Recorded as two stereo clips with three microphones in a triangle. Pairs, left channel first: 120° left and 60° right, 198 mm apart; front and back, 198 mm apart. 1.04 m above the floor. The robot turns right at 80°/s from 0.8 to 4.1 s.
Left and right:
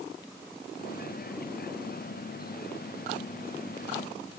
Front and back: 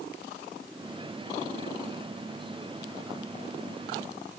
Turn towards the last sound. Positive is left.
No sound to turn to.